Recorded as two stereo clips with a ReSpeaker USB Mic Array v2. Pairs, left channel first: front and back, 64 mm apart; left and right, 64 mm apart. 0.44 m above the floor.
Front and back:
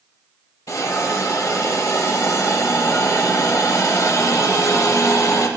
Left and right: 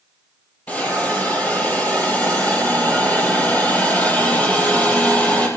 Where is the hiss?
25° left, 4.5 m.